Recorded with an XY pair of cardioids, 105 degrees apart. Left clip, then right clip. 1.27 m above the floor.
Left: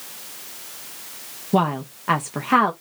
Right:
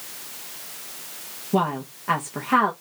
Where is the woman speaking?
30° left, 0.9 m.